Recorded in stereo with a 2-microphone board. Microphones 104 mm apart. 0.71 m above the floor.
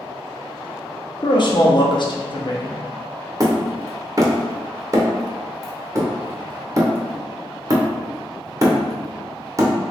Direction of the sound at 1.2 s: 50° left (ahead or behind).